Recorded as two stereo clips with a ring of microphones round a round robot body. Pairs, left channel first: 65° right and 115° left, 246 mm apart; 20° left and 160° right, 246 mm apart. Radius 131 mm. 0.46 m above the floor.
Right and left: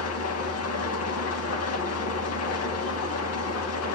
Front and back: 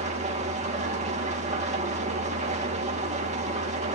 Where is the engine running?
95° right, 3 m.